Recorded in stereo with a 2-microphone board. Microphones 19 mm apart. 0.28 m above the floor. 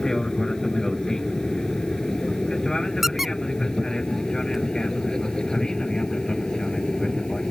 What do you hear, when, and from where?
0.0 s an aircraft: 30° left (ahead or behind); by 7.5 s 40° left (ahead or behind)
3.0 s a squeak: 25° right (ahead or behind)